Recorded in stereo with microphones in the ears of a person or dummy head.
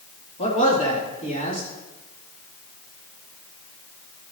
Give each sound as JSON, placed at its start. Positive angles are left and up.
{"t": 0.4, "sound": "a man speaking", "side_deg": 35, "distance_m": 2.5}